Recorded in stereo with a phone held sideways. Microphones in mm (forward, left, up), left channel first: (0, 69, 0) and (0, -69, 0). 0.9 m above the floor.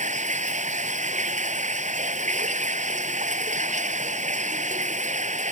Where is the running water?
60° right (ahead or behind).